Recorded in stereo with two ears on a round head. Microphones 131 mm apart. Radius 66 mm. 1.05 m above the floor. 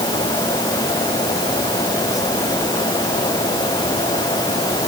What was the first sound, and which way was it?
Only background noise.